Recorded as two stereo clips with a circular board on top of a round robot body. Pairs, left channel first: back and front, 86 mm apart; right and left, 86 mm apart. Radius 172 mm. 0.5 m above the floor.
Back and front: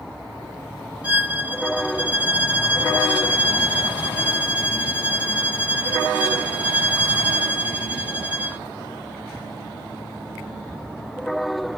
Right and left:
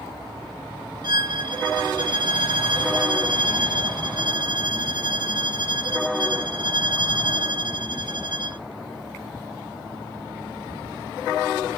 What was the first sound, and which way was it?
A violin, 70° left.